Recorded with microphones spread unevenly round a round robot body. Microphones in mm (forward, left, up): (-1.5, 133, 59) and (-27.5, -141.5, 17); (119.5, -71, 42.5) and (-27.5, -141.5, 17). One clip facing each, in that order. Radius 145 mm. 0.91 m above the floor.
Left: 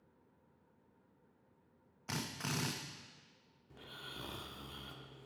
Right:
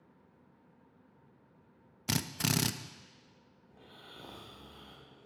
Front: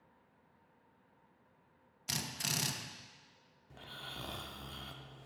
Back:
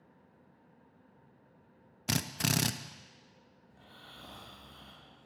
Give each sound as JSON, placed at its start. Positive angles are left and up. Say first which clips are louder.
{"t": 2.1, "sound": "a drill", "louder": "right 8 dB, back 10 dB", "azimuth_deg": -130, "distance_m": 0.6}
{"t": 3.7, "sound": "snoring", "louder": "left 2 dB, front 6 dB", "azimuth_deg": 20, "distance_m": 0.9}